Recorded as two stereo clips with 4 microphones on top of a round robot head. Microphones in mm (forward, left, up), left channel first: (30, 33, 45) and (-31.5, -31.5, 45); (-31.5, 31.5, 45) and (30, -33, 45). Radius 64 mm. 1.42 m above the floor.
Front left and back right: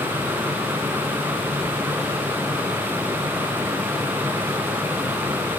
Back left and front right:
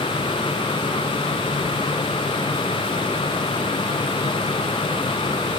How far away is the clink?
No clink in this recording.